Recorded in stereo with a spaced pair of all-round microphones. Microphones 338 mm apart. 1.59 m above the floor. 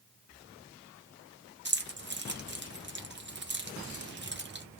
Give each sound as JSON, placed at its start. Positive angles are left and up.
{"t": 1.6, "sound": "keys jangling", "side_deg": -30, "distance_m": 0.7}